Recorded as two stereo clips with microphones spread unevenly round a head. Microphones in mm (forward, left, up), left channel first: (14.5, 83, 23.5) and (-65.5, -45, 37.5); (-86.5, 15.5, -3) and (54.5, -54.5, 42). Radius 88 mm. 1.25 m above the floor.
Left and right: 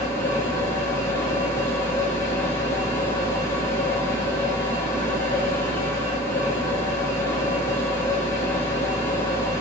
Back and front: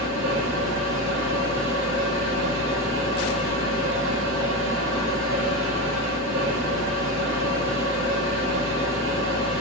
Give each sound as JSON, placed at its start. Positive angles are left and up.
{"t": 0.0, "sound": "a machine running", "azimuth_deg": -20, "distance_m": 1.7}